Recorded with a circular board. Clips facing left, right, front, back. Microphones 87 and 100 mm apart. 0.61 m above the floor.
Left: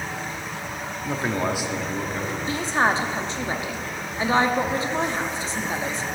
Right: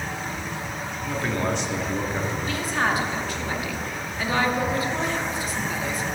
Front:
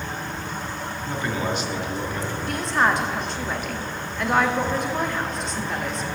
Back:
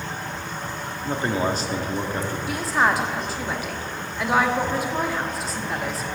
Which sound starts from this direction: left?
A woman speaking, at 2.5 s.